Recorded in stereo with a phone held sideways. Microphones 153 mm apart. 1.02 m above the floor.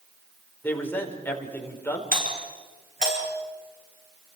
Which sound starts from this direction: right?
A doorbell, at 2.1 s.